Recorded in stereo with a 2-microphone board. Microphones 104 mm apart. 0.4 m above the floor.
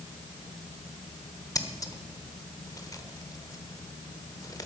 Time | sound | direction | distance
1.6 | scissors | 35° left (ahead or behind) | 1.0 m